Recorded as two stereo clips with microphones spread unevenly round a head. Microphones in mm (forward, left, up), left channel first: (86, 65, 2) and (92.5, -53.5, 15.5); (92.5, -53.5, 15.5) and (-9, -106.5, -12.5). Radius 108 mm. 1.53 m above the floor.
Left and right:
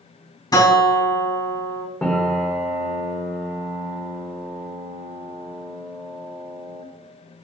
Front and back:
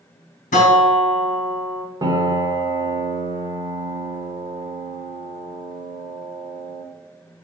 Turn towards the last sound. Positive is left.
turn(degrees=180)